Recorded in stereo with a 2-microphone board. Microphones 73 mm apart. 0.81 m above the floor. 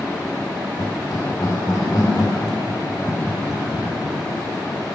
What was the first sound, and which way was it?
Laughter, 50° left (ahead or behind).